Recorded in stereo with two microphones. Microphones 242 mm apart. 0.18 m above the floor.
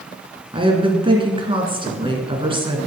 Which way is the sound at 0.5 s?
20° right (ahead or behind).